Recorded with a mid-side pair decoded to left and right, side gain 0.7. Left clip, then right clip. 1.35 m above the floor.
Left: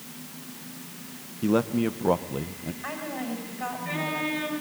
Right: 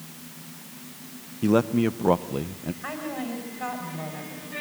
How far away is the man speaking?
About 0.8 m.